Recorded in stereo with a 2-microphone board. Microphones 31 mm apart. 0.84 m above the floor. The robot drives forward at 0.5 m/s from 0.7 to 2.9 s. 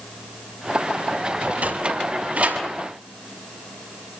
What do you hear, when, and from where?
1.4 s a sliding door: 50° right (ahead or behind), 6 m; by 2.6 s 45° right (ahead or behind), 6.5 m